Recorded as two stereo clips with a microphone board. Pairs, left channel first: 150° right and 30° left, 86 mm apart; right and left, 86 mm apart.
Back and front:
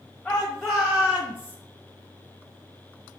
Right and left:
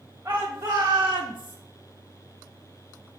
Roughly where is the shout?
Behind left.